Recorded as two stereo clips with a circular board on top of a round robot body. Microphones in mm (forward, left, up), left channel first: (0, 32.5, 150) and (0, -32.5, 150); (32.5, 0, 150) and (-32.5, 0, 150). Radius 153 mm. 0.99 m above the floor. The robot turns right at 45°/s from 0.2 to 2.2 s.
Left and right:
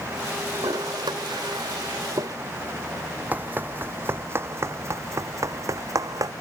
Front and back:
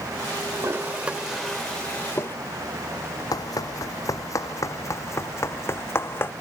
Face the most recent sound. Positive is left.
turn(degrees=-55)